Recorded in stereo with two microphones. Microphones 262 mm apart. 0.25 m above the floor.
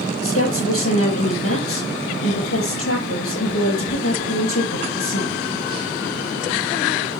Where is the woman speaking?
60° left (ahead or behind), 5 m.